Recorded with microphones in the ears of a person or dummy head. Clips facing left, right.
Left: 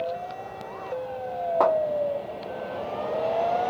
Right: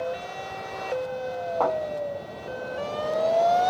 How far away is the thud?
About 1.2 m.